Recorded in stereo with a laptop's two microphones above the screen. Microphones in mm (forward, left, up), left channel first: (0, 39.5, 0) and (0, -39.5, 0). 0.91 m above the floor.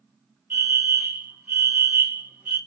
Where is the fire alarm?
25° right (ahead or behind), 1.7 m.